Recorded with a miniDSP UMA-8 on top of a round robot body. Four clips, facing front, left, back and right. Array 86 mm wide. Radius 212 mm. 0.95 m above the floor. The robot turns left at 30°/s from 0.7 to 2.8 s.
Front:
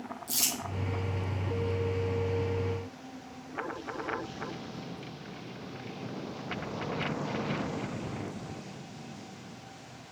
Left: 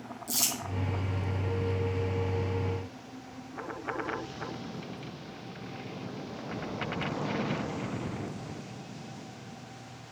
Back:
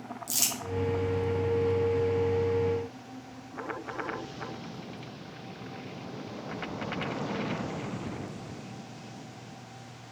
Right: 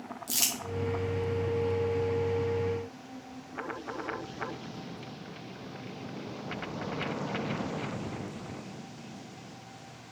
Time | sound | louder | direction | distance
0.3 | crumpling | left 4 dB, even | 100° right | 1.8 m